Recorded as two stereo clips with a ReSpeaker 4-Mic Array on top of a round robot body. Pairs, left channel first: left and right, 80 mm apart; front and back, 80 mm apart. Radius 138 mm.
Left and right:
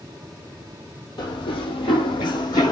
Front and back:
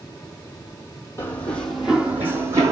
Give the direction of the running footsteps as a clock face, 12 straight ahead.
10 o'clock.